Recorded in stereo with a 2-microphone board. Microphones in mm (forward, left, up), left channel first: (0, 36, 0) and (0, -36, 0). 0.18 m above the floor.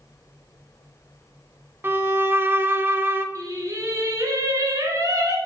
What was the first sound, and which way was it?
A violin, 30° right (ahead or behind).